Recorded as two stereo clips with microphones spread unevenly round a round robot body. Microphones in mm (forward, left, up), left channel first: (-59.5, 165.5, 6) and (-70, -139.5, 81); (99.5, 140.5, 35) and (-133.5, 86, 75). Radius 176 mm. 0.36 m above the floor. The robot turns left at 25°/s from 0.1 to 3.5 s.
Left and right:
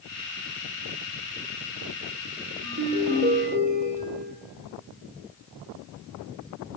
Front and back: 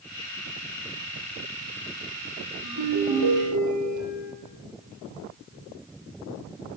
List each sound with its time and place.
2.6 s a ringtone: 135° right, 8 m; by 4.3 s 155° right, 8 m